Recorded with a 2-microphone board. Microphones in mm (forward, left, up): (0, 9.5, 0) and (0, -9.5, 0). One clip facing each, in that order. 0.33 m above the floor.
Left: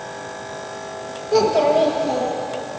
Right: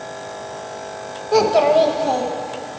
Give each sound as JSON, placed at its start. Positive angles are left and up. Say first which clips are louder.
{"t": 1.3, "sound": "a child speaking", "louder": "right 2 dB", "side_deg": -20, "distance_m": 0.5}